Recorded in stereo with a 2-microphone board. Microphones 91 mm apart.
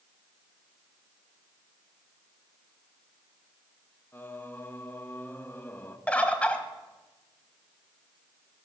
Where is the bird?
15° left (ahead or behind), 1.3 m.